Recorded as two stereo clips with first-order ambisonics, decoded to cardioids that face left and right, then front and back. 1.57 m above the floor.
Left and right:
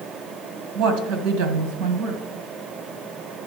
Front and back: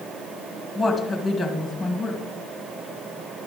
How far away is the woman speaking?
About 1.8 m.